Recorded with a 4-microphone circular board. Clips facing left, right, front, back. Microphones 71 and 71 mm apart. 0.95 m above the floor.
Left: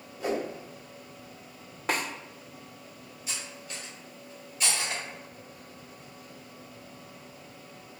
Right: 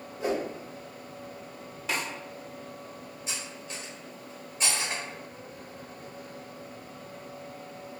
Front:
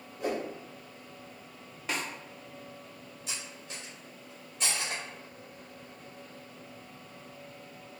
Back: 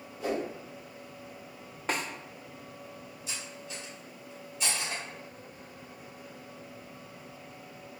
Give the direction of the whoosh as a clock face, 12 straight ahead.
1 o'clock.